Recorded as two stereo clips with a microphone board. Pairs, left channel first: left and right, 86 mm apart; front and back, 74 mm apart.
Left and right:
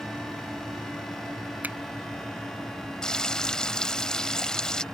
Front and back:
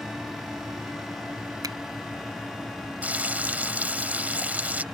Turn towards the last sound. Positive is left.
turn(degrees=160)